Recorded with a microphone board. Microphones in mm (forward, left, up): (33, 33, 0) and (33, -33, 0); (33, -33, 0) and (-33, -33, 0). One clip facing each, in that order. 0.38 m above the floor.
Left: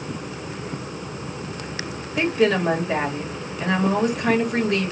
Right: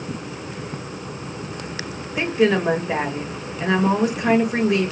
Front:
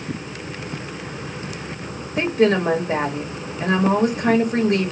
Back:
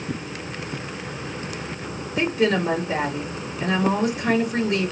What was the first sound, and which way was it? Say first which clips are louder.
A woman speaking: right 1 dB, front 3 dB; 15° right.